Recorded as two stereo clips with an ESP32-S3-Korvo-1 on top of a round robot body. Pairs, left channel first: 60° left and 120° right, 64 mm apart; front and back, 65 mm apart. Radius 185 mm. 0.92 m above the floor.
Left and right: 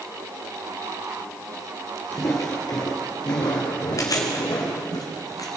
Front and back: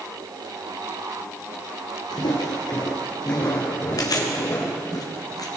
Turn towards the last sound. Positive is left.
turn(degrees=25)